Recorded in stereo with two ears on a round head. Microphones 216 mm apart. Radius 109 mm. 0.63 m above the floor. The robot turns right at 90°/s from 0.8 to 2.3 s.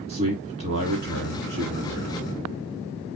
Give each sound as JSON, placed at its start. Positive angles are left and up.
{"t": 0.1, "sound": "a man speaking", "azimuth_deg": -135, "distance_m": 1.5}